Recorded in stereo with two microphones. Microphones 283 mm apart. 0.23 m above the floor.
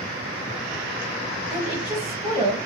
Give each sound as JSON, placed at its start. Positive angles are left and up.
{"t": 1.5, "sound": "a woman speaking", "side_deg": -20, "distance_m": 1.1}